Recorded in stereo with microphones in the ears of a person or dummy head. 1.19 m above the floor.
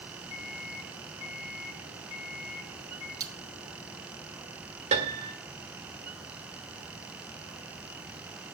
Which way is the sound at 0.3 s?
40° left (ahead or behind).